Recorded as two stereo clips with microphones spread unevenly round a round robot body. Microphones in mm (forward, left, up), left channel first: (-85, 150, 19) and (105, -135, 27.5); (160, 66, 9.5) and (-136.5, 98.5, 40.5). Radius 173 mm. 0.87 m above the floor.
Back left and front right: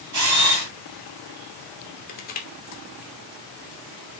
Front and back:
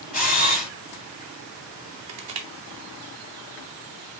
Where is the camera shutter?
95° right, 4 m.